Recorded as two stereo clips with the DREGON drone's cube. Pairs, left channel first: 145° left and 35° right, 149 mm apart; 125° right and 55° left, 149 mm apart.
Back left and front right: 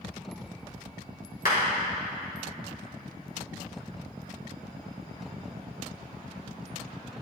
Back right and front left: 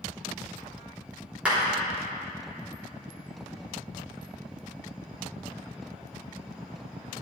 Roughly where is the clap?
Behind left.